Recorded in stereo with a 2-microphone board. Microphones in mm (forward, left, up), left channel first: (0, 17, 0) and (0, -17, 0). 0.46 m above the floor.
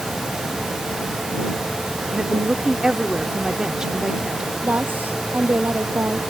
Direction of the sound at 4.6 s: 60° right (ahead or behind).